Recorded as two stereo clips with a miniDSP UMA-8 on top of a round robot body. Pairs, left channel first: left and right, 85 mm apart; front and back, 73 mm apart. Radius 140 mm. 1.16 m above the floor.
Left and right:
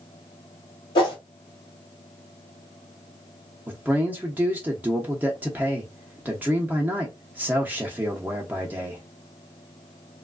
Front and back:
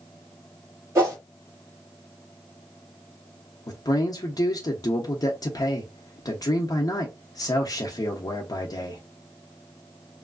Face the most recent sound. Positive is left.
turn(degrees=-20)